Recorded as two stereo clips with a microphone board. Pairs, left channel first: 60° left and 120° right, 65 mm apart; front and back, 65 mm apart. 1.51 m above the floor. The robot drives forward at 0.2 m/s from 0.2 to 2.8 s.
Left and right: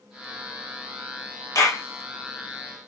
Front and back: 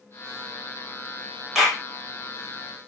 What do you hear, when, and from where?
1.6 s a clap: 95° left, 1.9 m